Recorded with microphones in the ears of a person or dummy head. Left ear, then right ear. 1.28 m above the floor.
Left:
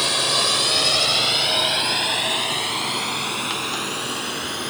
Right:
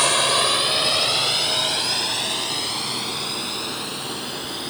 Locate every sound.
0.0 s a drone: 35° right (ahead or behind); by 4.7 s 40° left (ahead or behind)